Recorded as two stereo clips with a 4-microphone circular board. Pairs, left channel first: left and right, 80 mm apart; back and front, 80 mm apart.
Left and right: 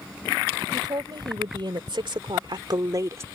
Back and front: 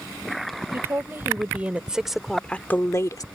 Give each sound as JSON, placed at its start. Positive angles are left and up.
{"t": 0.7, "sound": "a woman speaking", "azimuth_deg": -60}